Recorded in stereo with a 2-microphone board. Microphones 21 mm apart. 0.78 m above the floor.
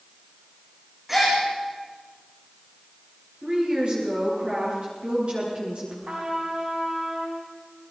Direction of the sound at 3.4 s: 60° right (ahead or behind).